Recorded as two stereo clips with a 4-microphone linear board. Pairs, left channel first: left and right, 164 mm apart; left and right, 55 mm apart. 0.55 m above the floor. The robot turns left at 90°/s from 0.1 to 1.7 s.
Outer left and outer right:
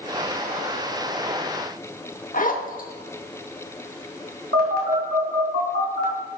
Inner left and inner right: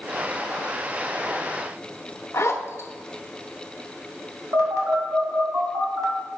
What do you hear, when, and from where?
2.3 s a zipper: 55° left (ahead or behind), 0.9 m
4.5 s a phone buzzing: 70° right (ahead or behind), 2.5 m